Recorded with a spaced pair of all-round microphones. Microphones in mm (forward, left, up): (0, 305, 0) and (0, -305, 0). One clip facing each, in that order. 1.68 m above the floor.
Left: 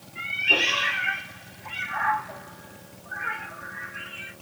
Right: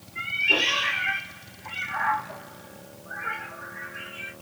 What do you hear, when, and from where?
0.1 s a cat meowing: 10° left (ahead or behind), 1.6 m